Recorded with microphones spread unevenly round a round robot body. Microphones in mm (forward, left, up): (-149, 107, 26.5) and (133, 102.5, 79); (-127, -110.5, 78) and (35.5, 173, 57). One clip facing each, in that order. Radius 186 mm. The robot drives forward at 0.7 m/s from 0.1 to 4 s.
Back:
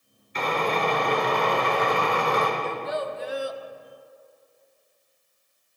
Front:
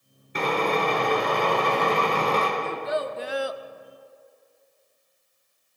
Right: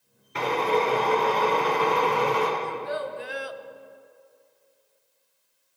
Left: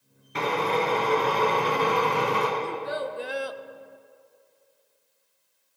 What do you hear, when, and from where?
0.3 s a drill: 35° left, 4 m; by 2.5 s 55° left, 3 m
2.6 s a child speaking: 15° left, 1.2 m; by 3.6 s 35° left, 0.6 m